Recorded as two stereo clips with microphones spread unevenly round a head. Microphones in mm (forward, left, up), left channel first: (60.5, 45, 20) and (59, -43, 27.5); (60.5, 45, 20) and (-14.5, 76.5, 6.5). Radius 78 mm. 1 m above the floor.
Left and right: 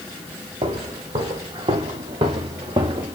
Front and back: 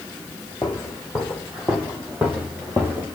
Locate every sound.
0.6 s footsteps: 95° right, 2.5 m; by 3.1 s 135° right, 1.7 m